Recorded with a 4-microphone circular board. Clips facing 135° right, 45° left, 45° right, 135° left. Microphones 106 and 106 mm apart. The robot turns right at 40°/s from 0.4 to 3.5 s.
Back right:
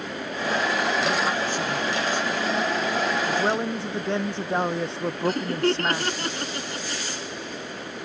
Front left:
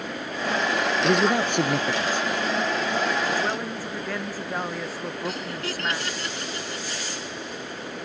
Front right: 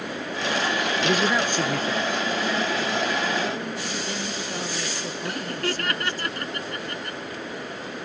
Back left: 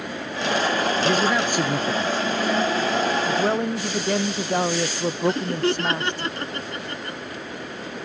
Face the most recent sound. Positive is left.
turn(degrees=-165)